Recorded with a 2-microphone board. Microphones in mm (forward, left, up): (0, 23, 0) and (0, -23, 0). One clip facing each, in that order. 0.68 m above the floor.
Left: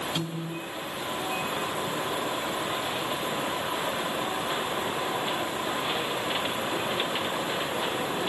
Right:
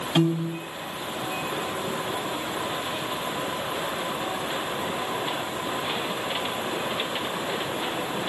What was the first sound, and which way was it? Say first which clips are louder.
A piano: right 9 dB; 55° right (ahead or behind).